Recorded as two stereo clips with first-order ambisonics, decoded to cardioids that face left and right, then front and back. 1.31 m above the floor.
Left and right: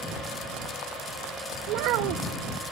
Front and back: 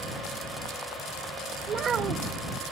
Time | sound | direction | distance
1.7 | a child speaking | 115° right | ?